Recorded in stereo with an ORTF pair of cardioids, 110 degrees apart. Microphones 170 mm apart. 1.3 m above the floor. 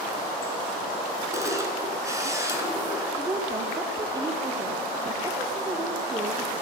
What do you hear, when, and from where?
1.3 s a camera shutter: 20° right, 5 m
3.2 s a woman speaking: 20° right, 2.5 m